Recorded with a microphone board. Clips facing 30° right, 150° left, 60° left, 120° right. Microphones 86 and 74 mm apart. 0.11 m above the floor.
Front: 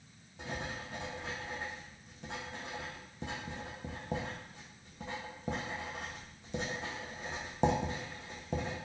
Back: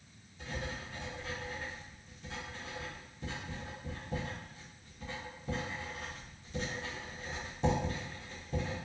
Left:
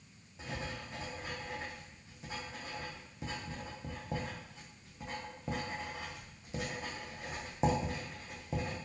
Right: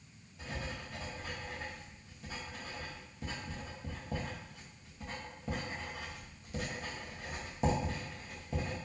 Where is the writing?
5° right, 1.8 m.